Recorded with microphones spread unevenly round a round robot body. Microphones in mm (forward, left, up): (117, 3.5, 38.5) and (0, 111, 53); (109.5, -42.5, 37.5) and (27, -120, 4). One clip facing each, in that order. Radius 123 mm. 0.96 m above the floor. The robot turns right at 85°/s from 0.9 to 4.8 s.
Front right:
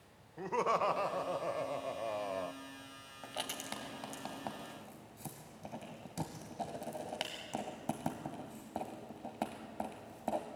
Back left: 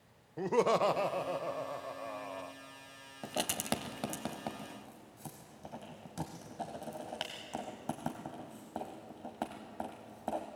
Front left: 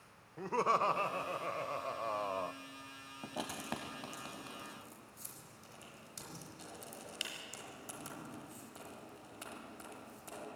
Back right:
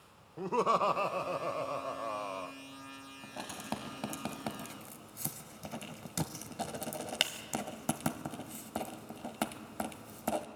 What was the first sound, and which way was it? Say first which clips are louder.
Laughter: back left 5 dB, back right 3 dB; 175° right.